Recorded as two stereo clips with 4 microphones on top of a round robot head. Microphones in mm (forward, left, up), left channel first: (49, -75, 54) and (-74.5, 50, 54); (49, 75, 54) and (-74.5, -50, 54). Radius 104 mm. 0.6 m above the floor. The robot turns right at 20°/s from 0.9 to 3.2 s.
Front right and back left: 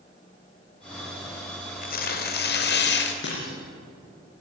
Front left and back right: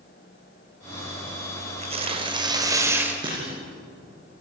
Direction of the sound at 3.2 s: 70° right.